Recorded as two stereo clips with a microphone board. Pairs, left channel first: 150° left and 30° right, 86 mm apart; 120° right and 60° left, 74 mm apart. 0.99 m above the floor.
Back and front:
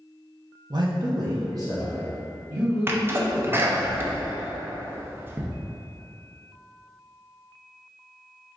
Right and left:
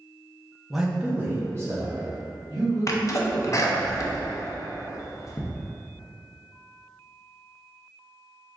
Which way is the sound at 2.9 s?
90° right.